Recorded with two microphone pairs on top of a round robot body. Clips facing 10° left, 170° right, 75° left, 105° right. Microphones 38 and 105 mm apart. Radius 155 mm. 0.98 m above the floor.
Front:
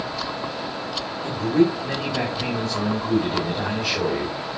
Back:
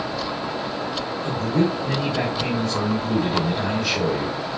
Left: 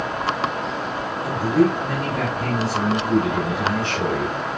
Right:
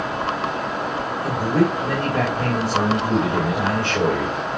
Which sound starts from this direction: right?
A man speaking, at 1.2 s.